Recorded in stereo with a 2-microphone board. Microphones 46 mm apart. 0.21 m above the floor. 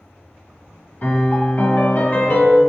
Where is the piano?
40° left (ahead or behind), 1.3 m.